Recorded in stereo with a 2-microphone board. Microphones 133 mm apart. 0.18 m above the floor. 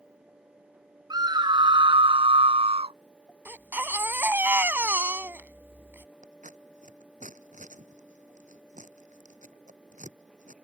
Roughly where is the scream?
Right.